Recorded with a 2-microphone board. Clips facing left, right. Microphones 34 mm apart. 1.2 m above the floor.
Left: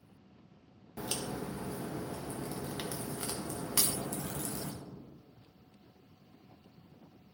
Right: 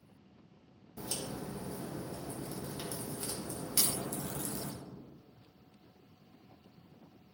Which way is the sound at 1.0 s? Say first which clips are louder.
Left 3 dB; 65° left (ahead or behind).